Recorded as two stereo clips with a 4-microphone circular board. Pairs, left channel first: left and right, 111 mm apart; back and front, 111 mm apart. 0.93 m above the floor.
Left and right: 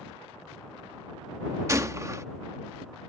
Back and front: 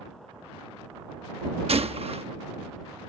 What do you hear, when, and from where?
1.7 s a gunshot: 25° right